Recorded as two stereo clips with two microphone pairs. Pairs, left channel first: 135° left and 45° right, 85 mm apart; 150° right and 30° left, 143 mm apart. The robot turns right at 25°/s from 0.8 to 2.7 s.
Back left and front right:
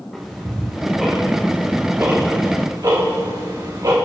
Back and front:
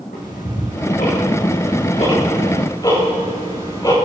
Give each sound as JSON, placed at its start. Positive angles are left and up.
{"t": 0.1, "sound": "ticking", "azimuth_deg": -135, "distance_m": 4.5}